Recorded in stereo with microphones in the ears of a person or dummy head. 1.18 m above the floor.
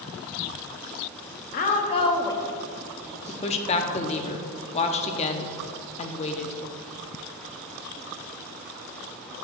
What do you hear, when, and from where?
1.5 s a woman speaking: 50° left (ahead or behind), 0.8 m; by 3.8 s 25° right (ahead or behind), 1.1 m
3.3 s a woman speaking: 35° left (ahead or behind), 0.6 m